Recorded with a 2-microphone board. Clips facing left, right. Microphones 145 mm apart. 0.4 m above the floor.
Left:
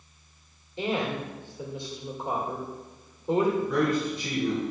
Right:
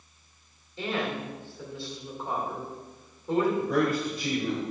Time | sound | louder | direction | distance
0.8 | a woman speaking | left 2 dB | 20° left (ahead or behind) | 1.4 m
3.6 | a man speaking | left 1 dB | 50° right (ahead or behind) | 2 m